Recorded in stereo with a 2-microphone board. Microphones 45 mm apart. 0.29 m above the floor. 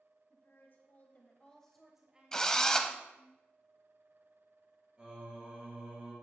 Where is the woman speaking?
55° left (ahead or behind), 1.7 m; by 3.3 s 55° right (ahead or behind), 1.6 m.